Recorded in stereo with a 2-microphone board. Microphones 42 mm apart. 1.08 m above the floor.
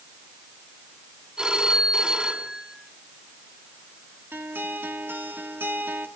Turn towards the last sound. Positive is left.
turn(degrees=-65)  # may be behind; listen again after turning